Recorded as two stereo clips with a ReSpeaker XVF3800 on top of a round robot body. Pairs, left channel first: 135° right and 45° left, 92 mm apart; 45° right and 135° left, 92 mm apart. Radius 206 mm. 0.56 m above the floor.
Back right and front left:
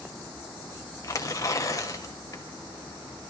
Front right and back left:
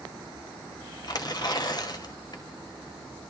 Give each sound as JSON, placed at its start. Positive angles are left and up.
{"t": 1.0, "sound": "tearing paper", "azimuth_deg": -85, "distance_m": 4.5}